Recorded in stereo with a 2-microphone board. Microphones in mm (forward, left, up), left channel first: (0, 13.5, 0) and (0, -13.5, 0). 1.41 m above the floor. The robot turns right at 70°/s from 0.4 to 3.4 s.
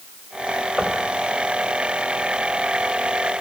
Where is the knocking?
20° right (ahead or behind), 4.5 m; by 1.0 s centre (ahead or behind), 4.5 m.